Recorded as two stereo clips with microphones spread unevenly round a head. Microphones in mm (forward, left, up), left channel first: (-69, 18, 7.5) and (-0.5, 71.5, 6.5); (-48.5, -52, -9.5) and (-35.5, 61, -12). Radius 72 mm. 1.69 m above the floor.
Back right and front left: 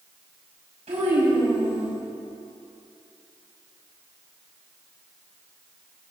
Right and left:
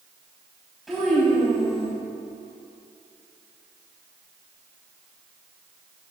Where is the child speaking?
5° right, 6 m.